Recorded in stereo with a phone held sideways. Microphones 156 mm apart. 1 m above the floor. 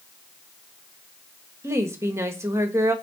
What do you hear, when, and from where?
1.6 s a woman speaking: 20° right (ahead or behind), 1.4 m